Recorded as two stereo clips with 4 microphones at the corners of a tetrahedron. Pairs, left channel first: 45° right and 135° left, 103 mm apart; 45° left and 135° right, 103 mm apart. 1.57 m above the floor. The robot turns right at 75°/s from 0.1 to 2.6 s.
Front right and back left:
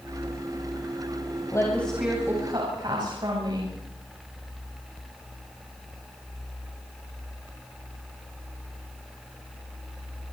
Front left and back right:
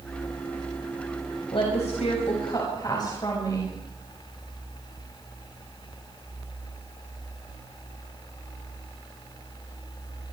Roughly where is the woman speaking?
Ahead.